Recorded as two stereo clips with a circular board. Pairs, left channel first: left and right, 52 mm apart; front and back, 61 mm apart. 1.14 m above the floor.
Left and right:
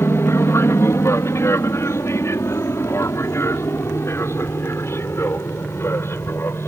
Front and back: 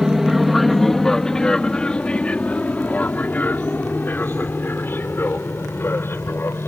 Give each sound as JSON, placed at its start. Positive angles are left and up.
{"t": 0.0, "sound": "an aircraft", "azimuth_deg": 95}